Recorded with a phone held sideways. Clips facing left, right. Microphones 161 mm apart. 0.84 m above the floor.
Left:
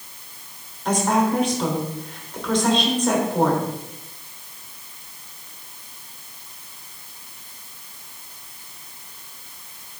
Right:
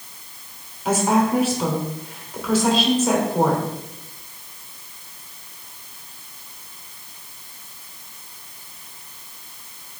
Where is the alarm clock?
No alarm clock in this recording.